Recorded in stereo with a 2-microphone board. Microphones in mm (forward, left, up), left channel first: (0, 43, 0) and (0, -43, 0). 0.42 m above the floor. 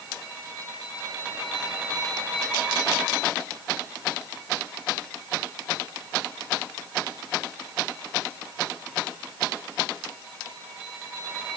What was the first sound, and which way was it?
Only background noise.